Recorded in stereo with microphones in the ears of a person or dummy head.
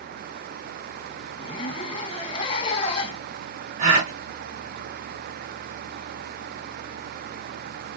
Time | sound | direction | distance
1.4 | a zipper | 30° left (ahead or behind) | 1.2 m
3.8 | a gasp | 45° right (ahead or behind) | 1.4 m